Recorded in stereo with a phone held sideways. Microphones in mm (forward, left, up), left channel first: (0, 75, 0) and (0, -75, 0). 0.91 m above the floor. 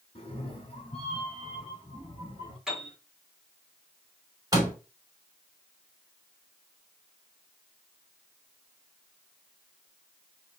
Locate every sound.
0.1 s a cat meowing: 40° left (ahead or behind), 1.7 m
2.7 s a piano: 5° right (ahead or behind), 2.5 m
4.5 s a door slam: 25° right (ahead or behind), 2 m